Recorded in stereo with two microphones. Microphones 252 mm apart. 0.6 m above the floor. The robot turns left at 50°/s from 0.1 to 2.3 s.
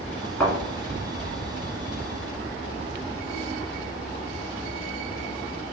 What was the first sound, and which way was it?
A thud, 10° left (ahead or behind).